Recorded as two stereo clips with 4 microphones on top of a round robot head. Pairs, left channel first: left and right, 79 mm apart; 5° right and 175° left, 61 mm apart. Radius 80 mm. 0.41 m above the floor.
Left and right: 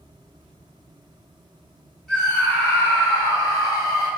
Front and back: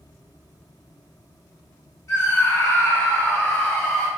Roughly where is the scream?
Ahead.